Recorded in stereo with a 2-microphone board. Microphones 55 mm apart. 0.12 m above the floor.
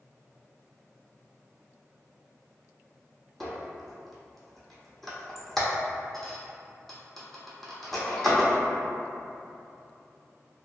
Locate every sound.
3.4 s a squeak: 5° left (ahead or behind), 0.7 m